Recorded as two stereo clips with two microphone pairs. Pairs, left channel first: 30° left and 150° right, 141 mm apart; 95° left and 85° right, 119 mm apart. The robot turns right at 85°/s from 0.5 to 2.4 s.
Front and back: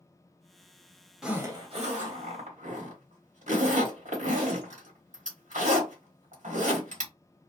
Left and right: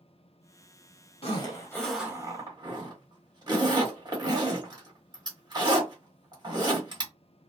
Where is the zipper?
125° left, 1.2 m; by 7.1 s 135° right, 1.2 m.